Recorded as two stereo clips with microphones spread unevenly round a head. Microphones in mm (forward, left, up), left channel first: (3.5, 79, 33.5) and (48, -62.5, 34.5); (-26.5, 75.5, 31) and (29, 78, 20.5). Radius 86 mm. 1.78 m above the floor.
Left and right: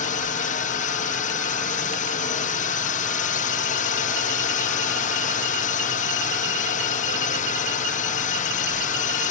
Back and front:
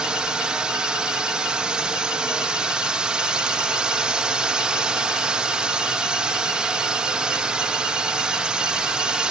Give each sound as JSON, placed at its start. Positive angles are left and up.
{"t": 0.0, "sound": "a drone", "azimuth_deg": 75}